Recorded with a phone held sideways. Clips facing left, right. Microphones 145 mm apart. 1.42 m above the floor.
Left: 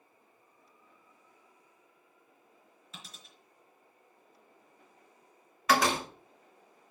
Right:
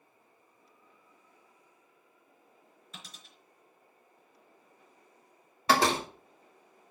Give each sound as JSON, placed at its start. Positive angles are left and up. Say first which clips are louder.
{"t": 2.9, "sound": "a dropped coin", "louder": "even", "side_deg": 0, "distance_m": 4.5}
{"t": 5.7, "sound": "a door slam", "louder": "right 1 dB", "side_deg": -30, "distance_m": 1.9}